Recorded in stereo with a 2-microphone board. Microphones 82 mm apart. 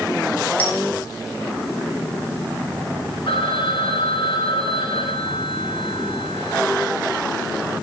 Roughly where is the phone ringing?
Left.